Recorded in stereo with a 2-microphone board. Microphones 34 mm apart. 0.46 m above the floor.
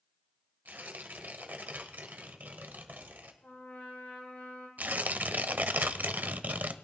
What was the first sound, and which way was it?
Tearing paper, 65° right (ahead or behind).